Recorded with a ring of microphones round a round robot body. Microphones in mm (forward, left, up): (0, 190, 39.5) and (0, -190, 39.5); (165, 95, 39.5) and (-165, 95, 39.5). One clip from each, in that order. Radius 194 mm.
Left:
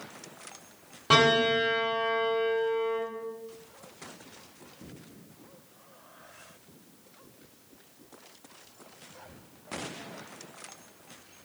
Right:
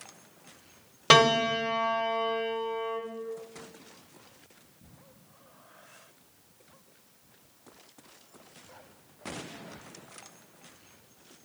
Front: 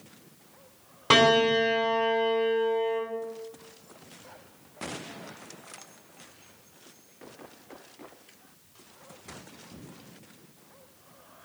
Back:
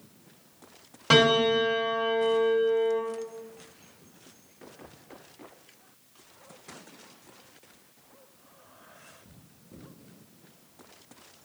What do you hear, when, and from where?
1.1 s a piano: 95° right, 1.3 m